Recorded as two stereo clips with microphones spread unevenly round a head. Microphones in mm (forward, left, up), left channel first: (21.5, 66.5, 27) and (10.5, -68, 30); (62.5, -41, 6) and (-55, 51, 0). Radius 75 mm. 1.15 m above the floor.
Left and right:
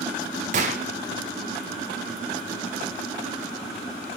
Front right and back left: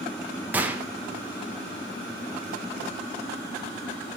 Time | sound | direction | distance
0.5 | a gunshot | 140° right | 0.5 m